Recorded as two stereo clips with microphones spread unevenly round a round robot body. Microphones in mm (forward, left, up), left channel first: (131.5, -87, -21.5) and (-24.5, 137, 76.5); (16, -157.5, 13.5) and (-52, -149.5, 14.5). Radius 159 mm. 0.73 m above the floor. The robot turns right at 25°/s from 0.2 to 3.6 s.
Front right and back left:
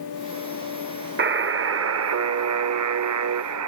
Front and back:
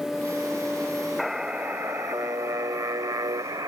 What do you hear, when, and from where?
1.2 s a buzzer: 85° left; by 3.7 s 145° left